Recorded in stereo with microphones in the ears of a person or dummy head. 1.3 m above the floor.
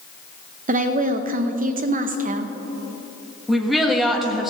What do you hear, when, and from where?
0.7 s a woman speaking: 40° right (ahead or behind), 0.6 m
3.5 s a woman speaking: centre (ahead or behind), 1.4 m